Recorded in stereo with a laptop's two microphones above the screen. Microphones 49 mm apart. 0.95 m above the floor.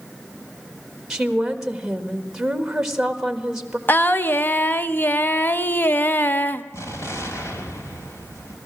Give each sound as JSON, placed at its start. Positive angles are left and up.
{"t": 1.1, "sound": "a woman speaking", "side_deg": -10, "distance_m": 1.4}
{"t": 3.9, "sound": "singing", "side_deg": 45, "distance_m": 0.6}
{"t": 6.7, "sound": "an explosion", "side_deg": 80, "distance_m": 3.0}